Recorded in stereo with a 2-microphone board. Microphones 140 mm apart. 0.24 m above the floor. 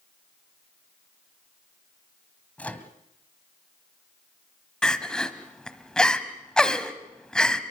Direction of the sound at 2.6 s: 10° left (ahead or behind).